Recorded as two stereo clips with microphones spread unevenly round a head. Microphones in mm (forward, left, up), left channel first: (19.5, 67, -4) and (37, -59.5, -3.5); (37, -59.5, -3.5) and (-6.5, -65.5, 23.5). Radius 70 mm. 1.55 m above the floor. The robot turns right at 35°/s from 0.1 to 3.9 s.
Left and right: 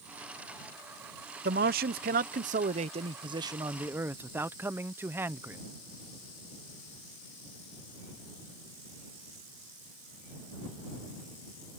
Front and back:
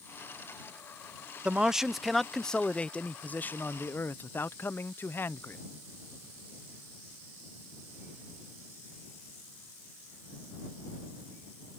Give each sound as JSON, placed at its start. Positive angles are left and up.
{"t": 1.4, "sound": "a man speaking", "azimuth_deg": -95}